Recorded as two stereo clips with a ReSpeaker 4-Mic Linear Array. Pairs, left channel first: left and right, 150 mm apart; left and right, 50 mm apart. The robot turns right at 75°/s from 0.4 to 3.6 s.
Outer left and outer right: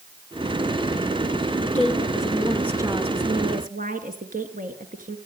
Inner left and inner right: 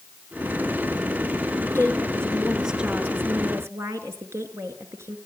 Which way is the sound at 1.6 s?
115° left.